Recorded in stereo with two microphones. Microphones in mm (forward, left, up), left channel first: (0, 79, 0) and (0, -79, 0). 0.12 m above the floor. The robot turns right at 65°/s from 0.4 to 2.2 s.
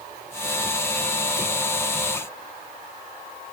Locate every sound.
Only background noise.